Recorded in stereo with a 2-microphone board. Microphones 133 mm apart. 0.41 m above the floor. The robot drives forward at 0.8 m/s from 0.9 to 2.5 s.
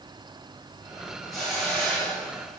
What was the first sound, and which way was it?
A hiss, centre (ahead or behind).